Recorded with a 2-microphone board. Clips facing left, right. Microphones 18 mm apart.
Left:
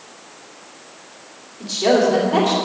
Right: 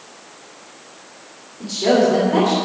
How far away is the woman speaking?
About 2.5 m.